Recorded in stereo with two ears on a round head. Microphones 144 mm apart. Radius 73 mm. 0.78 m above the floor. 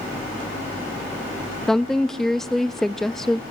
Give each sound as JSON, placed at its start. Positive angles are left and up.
{"t": 1.7, "sound": "a woman speaking", "side_deg": 5, "distance_m": 0.5}